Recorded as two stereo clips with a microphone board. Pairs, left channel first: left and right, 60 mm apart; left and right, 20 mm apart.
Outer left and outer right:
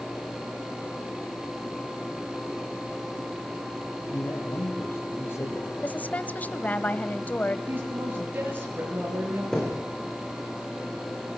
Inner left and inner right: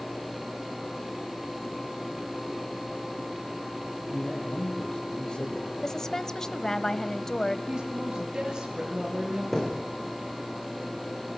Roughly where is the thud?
Centre.